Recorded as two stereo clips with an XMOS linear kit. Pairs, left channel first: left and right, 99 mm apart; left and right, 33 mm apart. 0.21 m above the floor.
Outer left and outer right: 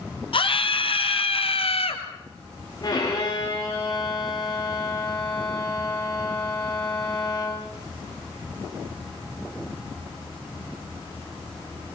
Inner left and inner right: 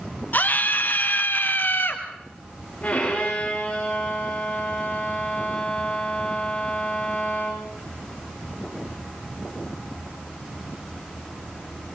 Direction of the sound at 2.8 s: 40° left (ahead or behind).